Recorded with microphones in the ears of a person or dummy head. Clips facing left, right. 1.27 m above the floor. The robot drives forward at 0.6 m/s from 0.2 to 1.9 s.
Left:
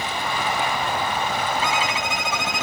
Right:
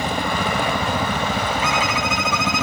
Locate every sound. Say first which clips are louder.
0.0 s a helicopter: right 4 dB; 50° right (ahead or behind); by 2.6 s 65° right (ahead or behind)
1.6 s a violin: right 2 dB; 25° left (ahead or behind)